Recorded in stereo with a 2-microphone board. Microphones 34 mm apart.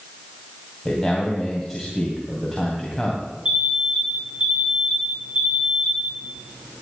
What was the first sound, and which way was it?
A man speaking, 5° left (ahead or behind).